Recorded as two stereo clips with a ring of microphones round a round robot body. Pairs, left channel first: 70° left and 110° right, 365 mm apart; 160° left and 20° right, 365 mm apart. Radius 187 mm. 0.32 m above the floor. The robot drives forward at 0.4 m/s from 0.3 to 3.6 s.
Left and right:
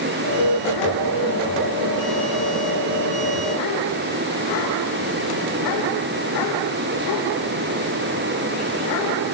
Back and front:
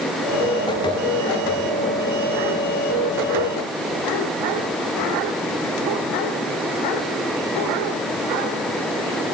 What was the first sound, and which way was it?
Only background noise.